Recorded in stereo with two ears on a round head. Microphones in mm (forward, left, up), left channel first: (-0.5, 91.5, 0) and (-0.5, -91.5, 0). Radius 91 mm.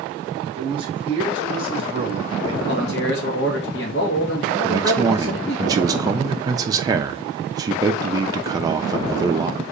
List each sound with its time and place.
0.6 s a man speaking: 25° right (ahead or behind), 1.4 m
2.7 s a man speaking: 55° left (ahead or behind), 1.3 m
4.6 s a man speaking: 20° right (ahead or behind), 0.6 m